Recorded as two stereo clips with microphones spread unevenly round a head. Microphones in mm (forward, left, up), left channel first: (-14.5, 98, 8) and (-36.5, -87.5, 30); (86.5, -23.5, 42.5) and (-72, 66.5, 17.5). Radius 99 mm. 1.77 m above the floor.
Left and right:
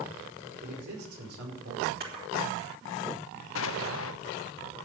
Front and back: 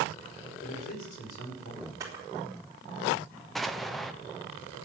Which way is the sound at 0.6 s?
80° right.